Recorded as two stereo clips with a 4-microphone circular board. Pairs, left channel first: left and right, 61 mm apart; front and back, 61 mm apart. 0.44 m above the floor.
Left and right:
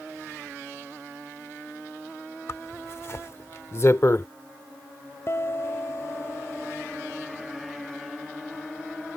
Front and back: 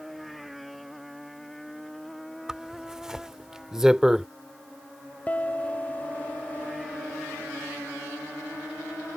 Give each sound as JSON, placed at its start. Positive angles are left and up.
{"t": 2.5, "sound": "a zipper", "azimuth_deg": 100}
{"t": 5.3, "sound": "a piano", "azimuth_deg": 60}